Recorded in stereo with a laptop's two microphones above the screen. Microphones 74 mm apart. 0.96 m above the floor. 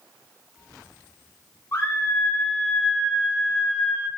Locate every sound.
1.7 s a scream: 30° left (ahead or behind), 2 m; by 4.1 s 20° right (ahead or behind), 2 m